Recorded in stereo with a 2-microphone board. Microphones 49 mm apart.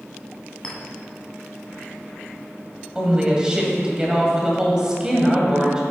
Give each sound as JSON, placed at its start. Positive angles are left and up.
{"t": 0.6, "sound": "a clink", "side_deg": 20, "distance_m": 1.7}
{"t": 3.0, "sound": "a woman speaking", "side_deg": -15, "distance_m": 1.8}